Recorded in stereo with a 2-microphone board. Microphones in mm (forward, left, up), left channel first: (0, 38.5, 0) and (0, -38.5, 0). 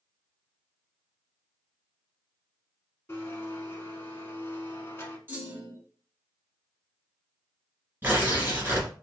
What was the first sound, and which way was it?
A blender, 30° left (ahead or behind).